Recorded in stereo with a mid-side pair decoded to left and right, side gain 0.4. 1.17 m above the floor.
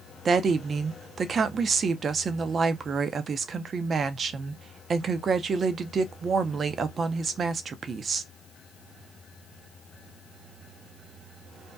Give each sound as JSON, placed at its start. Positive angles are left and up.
{"t": 0.2, "sound": "a woman speaking", "azimuth_deg": -55, "distance_m": 0.6}